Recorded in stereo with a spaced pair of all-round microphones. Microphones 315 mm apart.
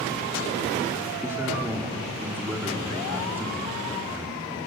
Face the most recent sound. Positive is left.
turn(degrees=-5)  # may be behind; listen again after turning